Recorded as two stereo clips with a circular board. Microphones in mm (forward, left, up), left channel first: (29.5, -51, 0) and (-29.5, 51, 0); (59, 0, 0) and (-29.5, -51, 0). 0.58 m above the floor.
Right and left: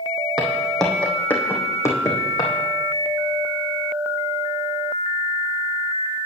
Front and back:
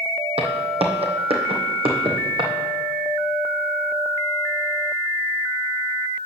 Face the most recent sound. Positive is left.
turn(degrees=-115)